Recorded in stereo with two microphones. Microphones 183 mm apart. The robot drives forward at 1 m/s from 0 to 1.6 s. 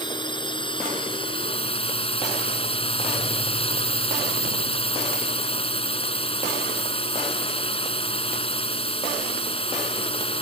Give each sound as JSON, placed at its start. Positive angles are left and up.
{"t": 0.0, "sound": "a drone", "side_deg": 25}